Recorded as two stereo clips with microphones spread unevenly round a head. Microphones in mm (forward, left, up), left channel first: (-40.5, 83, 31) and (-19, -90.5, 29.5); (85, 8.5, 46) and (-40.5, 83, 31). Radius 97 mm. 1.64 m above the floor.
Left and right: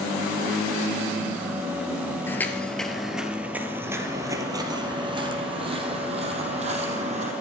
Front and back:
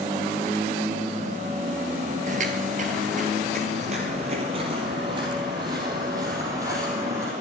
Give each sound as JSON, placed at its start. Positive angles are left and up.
{"t": 2.3, "sound": "footsteps", "azimuth_deg": 165, "distance_m": 2.0}